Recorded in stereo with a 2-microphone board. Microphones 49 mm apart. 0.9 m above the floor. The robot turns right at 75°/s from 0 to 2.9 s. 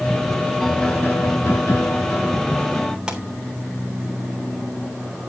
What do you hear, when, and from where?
0.6 s a piano: 5° left, 1.3 m; by 3.0 s 175° left, 1.3 m
3.1 s a pop: 15° right (ahead or behind), 3 m